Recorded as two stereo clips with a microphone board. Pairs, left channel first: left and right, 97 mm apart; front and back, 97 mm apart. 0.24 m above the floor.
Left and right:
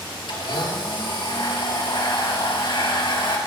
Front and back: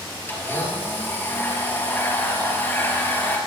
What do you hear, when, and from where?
0.3 s a blender: 65° left, 4.5 m